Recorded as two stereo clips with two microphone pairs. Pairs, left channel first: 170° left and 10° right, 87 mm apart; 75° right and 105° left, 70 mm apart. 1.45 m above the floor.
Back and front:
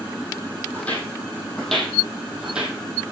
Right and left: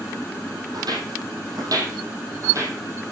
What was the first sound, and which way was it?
Footsteps, 95° left.